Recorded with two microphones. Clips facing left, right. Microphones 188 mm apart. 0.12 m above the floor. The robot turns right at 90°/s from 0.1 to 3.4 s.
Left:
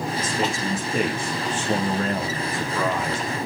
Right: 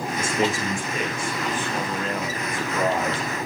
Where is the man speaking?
35° right, 8.5 m; by 3.3 s 115° right, 8.5 m.